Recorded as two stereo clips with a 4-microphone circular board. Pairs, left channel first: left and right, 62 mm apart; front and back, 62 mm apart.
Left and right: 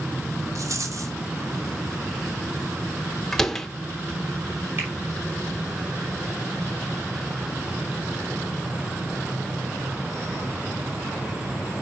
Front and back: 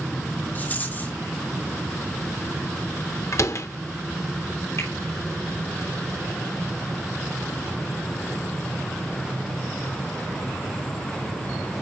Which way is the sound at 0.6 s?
60° right.